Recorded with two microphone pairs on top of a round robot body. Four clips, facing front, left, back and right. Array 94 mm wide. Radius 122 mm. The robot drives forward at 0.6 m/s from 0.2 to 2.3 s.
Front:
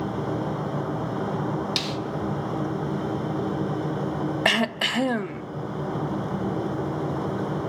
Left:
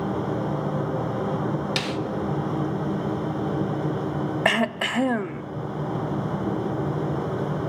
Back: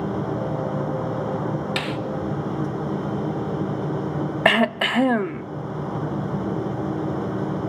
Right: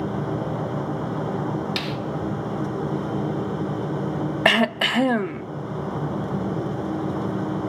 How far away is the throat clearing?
About 0.7 m.